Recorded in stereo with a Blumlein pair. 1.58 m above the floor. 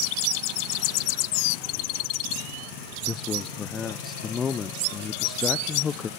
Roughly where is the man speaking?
Ahead.